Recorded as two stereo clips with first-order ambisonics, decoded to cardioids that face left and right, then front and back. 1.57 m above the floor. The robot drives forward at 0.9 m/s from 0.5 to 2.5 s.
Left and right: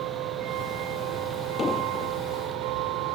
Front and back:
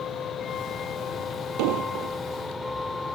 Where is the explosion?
165° left.